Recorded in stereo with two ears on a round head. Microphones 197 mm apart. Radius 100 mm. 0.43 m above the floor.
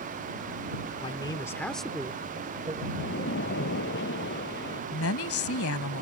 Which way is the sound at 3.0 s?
55° left (ahead or behind).